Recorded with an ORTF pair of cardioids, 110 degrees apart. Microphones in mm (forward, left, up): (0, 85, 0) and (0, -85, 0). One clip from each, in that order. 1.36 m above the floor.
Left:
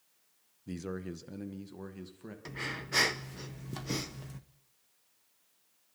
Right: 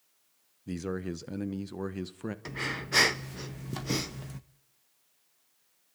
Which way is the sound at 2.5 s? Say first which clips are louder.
Right 3 dB; 20° right.